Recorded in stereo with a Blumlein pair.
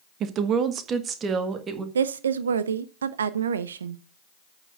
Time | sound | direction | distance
0.2 | a woman speaking | 30° right | 1.1 m
1.9 | a woman speaking | 65° right | 0.7 m